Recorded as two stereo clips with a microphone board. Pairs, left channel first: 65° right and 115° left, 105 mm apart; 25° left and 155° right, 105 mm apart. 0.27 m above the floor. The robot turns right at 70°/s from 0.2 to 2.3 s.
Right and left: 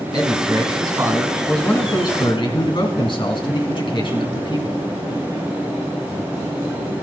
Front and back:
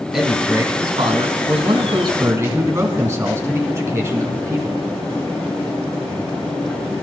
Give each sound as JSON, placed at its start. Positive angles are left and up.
{"t": 0.1, "sound": "a man speaking", "azimuth_deg": 115, "distance_m": 2.5}